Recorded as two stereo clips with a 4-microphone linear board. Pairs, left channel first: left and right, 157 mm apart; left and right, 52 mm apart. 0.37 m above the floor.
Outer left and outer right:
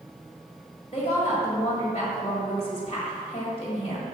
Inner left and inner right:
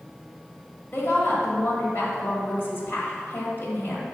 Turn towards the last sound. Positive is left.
turn(degrees=40)  # may be behind; listen again after turning